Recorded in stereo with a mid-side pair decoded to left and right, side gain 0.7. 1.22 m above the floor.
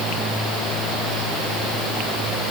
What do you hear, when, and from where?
Only background noise.